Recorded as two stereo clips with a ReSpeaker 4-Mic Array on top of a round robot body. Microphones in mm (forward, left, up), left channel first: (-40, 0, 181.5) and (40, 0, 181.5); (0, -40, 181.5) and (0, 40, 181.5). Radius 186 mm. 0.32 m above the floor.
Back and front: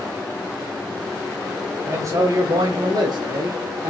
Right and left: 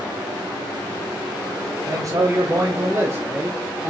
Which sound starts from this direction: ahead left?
A man speaking, at 1.9 s.